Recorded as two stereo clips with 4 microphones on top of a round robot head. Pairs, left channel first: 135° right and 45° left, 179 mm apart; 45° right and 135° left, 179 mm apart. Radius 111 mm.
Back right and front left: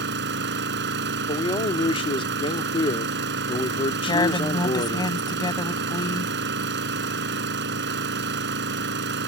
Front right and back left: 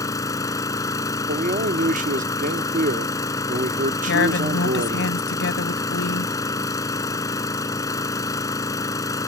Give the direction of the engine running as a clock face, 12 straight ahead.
11 o'clock.